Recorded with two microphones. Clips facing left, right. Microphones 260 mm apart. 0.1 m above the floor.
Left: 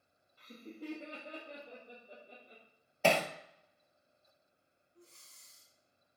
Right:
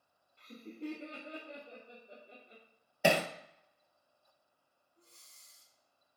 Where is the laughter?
5° left (ahead or behind), 1.9 m.